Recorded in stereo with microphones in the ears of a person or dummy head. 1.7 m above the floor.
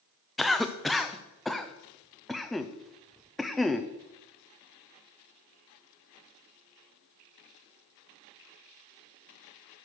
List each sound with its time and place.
0.4 s a cough: centre (ahead or behind), 0.6 m